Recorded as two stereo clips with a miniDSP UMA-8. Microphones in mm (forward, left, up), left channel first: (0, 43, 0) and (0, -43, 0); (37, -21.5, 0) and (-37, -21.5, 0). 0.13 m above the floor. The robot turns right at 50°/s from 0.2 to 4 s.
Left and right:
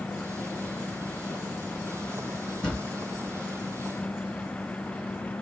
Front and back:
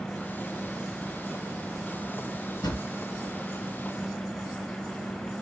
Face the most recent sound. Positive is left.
turn(degrees=75)